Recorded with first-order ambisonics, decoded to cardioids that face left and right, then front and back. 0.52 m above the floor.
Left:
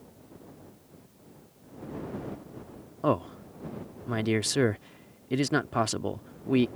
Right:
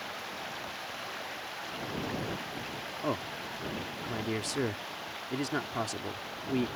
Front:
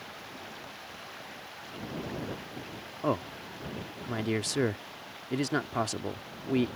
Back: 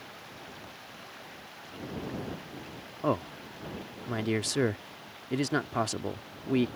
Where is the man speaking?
100° left.